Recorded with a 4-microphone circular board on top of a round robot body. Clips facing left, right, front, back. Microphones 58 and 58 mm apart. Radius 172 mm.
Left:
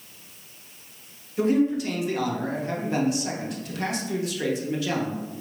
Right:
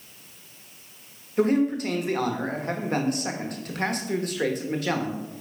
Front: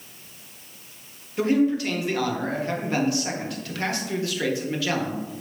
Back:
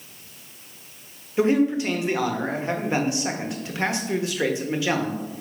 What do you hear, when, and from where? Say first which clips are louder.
1.4 s a man speaking: even, back 1 dB; 115° right, 1.4 m